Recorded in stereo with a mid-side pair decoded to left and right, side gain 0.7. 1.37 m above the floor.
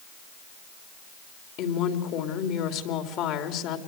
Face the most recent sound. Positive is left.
turn(degrees=60)